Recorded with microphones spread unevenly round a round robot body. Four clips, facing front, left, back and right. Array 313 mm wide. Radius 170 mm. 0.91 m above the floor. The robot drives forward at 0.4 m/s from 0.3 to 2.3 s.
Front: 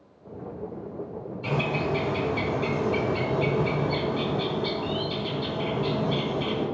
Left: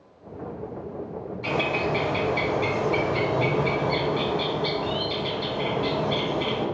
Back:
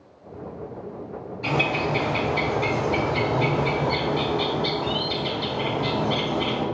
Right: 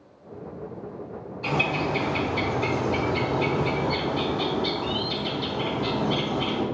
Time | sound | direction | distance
1.4 | a bird | 160° right | 3.5 m